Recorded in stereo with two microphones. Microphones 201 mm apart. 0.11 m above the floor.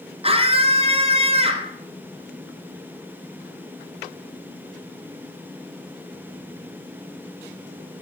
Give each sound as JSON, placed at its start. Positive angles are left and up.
{"t": 0.2, "sound": "a scream", "side_deg": -30, "distance_m": 1.7}